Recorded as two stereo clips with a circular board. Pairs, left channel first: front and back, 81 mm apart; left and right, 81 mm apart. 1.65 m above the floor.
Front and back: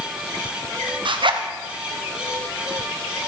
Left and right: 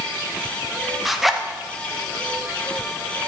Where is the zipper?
Straight behind, 0.9 m.